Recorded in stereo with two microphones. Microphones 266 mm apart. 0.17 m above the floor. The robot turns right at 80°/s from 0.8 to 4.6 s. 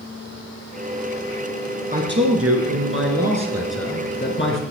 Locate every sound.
1.9 s a man speaking: 145° right, 2.5 m; by 4.6 s 70° left, 2.5 m